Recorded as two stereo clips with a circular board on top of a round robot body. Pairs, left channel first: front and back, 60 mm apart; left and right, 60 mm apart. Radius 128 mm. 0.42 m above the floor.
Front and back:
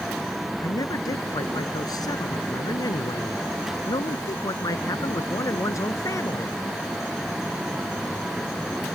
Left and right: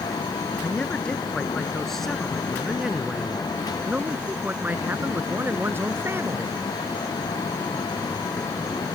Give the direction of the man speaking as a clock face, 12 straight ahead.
11 o'clock.